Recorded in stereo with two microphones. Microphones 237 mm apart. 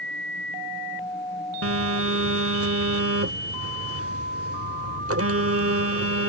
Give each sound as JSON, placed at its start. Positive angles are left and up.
{"t": 1.6, "sound": "a phone buzzing", "side_deg": -80}